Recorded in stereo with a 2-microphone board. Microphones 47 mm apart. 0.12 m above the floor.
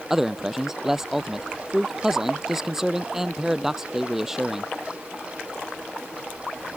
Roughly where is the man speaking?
Centre.